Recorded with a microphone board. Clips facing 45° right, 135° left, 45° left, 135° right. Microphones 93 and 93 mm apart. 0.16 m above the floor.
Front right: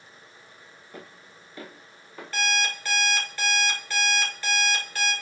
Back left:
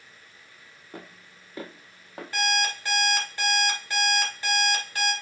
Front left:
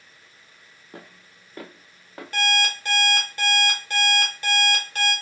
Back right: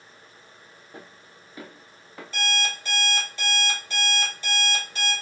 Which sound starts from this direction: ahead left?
An alarm clock, at 2.3 s.